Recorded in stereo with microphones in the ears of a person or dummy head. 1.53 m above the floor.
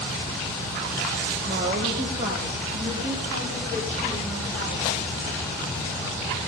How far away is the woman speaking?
About 1.5 m.